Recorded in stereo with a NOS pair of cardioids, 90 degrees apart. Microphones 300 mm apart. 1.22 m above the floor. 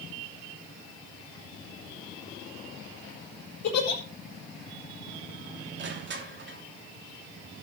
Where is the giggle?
65° left, 7 m.